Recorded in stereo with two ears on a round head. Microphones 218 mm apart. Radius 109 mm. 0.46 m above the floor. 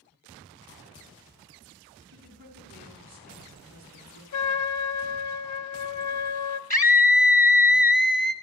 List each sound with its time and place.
2.1 s a woman speaking: 40° right (ahead or behind), 5 m
4.3 s a trumpet: 80° left, 0.7 m
6.7 s a scream: 10° left (ahead or behind), 1.5 m